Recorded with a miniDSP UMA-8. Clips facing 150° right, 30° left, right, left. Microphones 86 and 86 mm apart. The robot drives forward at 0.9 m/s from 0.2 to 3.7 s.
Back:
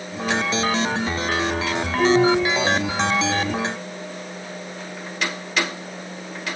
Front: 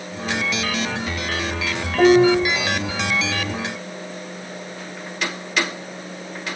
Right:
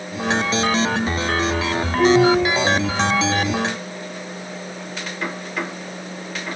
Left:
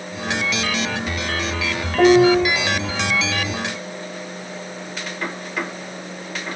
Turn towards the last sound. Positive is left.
turn(degrees=150)